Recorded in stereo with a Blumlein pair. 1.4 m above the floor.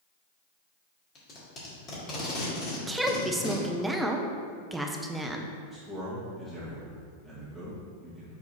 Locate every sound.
1.1 s tape being pulled: 30° left, 2 m
2.7 s a woman speaking: 5° right, 0.8 m
5.7 s a man speaking: 5° right, 2.0 m